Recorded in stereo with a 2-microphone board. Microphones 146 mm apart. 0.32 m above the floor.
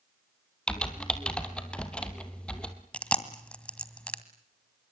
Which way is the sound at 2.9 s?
5° left (ahead or behind).